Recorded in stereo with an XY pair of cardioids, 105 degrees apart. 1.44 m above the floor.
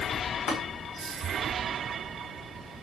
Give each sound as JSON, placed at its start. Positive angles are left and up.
{"t": 0.5, "sound": "tapping", "azimuth_deg": 70, "distance_m": 1.5}